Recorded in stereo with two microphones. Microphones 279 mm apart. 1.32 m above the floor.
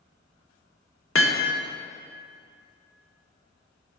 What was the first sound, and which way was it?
Hammering, 55° left (ahead or behind).